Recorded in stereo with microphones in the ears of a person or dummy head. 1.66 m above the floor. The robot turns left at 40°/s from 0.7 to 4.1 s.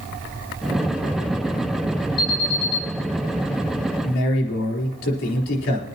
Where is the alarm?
50° left (ahead or behind), 2.5 m; by 2.8 s 30° left (ahead or behind), 2.5 m.